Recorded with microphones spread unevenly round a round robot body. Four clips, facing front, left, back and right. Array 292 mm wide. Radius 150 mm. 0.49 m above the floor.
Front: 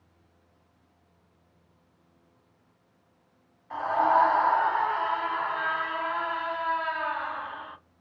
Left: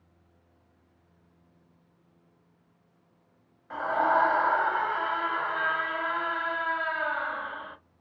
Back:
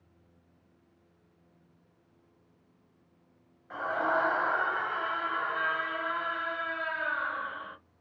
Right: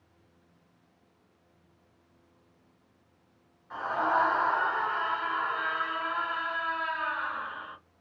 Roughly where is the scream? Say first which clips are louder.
Left 3 dB, front 7 dB; left.